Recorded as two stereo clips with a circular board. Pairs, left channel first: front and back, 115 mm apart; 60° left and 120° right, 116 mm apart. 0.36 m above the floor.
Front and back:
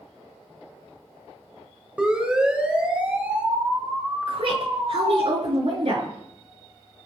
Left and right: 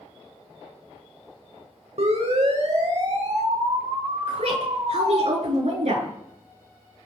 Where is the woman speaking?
145° right, 6 m.